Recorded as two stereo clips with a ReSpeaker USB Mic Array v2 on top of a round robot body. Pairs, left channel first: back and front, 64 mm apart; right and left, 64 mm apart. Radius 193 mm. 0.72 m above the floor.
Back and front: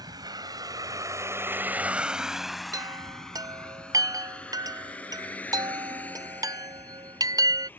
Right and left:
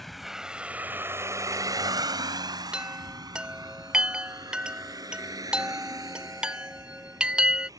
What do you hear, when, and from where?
0.0 s a vehicle: straight ahead; by 7.8 s 120° left
2.7 s a chime: 15° left